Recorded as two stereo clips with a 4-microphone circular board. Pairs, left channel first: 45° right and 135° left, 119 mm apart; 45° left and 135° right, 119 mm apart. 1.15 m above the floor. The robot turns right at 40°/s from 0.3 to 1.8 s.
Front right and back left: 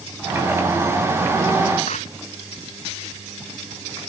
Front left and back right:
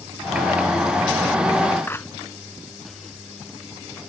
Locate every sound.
1.9 s a clap: 25° right